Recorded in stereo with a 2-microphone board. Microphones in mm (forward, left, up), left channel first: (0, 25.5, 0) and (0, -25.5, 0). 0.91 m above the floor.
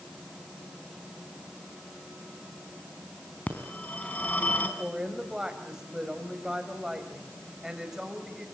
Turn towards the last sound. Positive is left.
turn(degrees=-10)  # may be behind; listen again after turning